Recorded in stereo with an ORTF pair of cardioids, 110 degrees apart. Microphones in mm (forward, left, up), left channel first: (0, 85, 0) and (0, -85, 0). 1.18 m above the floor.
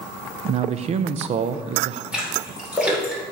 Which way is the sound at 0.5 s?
45° right.